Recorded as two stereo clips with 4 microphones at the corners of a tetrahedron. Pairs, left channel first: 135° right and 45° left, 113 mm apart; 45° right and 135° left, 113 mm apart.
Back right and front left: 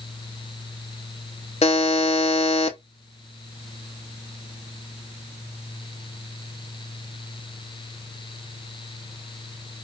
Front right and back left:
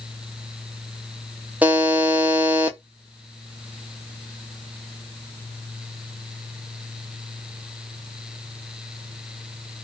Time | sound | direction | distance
1.6 | a buzzer | 150° right | 0.5 m